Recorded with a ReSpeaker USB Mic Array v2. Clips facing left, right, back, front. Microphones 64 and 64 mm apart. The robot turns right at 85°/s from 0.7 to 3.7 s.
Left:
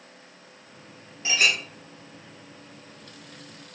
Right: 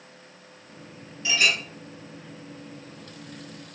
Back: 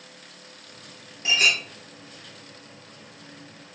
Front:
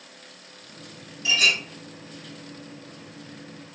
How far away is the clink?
About 1.7 m.